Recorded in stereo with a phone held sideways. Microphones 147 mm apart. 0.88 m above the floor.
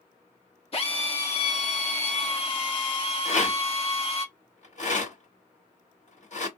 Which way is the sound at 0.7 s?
40° left (ahead or behind).